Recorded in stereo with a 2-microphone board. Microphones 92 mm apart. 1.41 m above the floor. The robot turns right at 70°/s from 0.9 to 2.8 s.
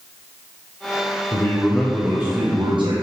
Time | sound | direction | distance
1.3 | a man speaking | 135° left | 0.9 m